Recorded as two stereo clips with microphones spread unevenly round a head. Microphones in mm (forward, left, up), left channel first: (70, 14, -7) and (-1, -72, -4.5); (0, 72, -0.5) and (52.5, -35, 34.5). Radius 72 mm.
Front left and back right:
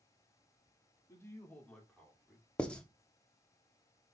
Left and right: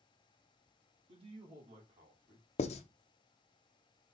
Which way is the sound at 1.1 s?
15° right.